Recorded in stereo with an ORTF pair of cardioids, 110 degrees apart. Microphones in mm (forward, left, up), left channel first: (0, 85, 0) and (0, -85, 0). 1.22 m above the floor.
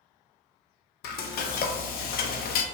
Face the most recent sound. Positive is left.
turn(degrees=65)